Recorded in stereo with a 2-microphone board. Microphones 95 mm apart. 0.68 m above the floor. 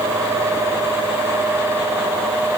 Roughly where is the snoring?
No snoring in this recording.